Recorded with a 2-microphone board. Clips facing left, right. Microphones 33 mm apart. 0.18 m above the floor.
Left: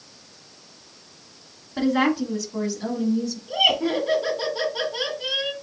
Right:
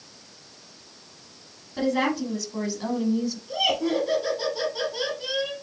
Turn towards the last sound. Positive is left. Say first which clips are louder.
# left 4 dB
turn(degrees=25)  # may be behind; listen again after turning